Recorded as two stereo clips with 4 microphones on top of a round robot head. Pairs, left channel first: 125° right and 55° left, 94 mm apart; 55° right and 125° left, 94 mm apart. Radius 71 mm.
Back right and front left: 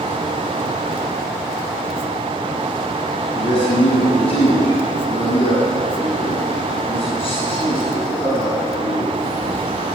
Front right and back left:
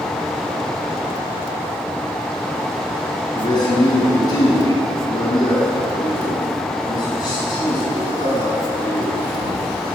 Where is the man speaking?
100° right, 7 m.